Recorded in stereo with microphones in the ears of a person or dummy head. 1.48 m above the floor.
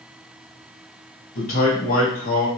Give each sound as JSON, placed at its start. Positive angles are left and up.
{"t": 1.4, "sound": "a man speaking", "side_deg": 40, "distance_m": 1.4}